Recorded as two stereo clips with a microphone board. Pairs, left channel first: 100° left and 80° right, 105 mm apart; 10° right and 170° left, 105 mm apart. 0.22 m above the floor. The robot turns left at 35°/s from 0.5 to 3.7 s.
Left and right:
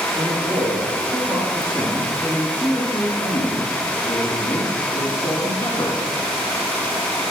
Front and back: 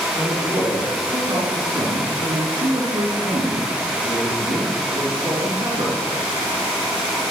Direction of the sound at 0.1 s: 115° right.